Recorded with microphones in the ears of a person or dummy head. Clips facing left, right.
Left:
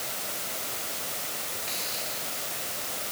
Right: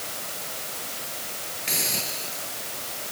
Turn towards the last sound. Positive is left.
turn(degrees=-60)  # may be behind; listen again after turning